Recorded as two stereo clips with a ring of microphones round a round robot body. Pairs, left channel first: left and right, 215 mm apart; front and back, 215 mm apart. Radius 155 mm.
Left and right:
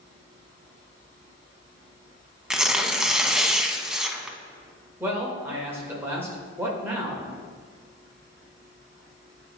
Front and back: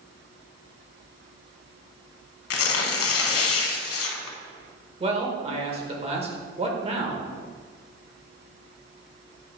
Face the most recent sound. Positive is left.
turn(degrees=-160)